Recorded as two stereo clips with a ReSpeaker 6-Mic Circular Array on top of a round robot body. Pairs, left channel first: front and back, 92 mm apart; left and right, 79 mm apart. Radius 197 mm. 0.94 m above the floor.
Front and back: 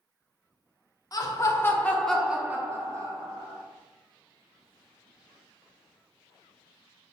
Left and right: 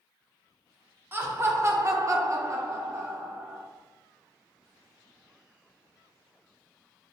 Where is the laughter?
35° right, 1.1 m; by 3.6 s 155° right, 1.3 m.